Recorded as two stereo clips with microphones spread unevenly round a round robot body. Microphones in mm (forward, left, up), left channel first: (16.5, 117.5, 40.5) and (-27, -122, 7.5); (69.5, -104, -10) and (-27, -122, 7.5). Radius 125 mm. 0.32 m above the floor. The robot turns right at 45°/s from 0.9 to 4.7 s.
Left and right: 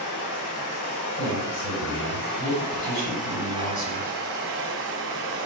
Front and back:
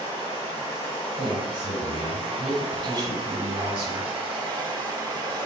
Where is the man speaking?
40° left, 1.9 m; by 4.1 s 170° left, 1.9 m.